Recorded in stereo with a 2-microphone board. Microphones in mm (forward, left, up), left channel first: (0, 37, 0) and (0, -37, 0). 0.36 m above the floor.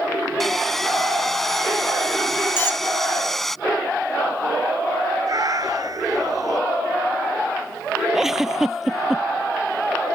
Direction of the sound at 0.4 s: 5° left (ahead or behind).